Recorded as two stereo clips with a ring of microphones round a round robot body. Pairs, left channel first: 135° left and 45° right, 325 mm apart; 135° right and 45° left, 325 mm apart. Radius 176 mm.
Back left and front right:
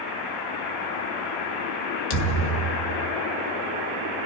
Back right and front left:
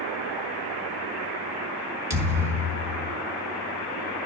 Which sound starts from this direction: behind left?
A thud, at 2.1 s.